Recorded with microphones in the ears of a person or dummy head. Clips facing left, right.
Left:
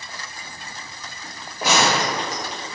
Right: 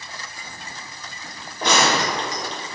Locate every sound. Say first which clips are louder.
1.6 s a gunshot: even; centre (ahead or behind), 1.1 m